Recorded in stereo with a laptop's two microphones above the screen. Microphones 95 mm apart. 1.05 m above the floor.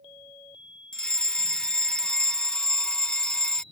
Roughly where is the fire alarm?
Centre.